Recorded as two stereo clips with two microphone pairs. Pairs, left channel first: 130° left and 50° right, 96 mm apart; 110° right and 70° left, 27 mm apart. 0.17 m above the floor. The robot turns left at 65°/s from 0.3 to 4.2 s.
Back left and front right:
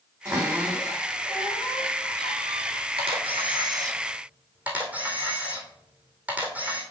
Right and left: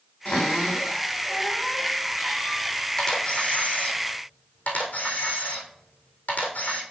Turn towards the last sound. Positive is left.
turn(degrees=-130)